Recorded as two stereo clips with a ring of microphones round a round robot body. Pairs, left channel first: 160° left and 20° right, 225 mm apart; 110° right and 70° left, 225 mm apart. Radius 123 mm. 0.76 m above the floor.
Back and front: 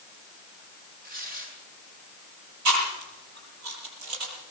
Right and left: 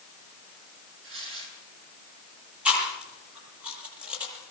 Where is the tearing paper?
30° left, 7 m.